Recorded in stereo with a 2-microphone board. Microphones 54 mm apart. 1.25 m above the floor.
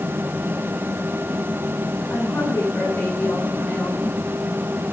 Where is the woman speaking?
55° left (ahead or behind), 9.5 m.